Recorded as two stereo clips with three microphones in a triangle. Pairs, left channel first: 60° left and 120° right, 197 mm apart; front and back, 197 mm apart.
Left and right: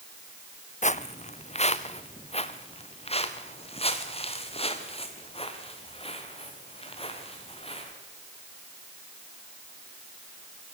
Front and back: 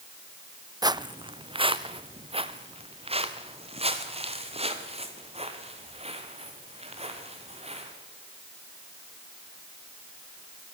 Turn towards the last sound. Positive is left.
turn(degrees=120)